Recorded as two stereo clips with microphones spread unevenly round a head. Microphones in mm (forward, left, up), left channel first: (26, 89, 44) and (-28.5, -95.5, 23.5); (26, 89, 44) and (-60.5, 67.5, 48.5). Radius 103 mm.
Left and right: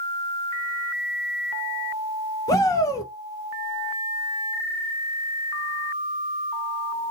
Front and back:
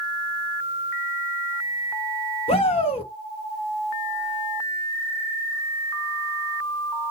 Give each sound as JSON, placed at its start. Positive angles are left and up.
{"t": 2.5, "sound": "a shout", "azimuth_deg": 0, "distance_m": 1.1}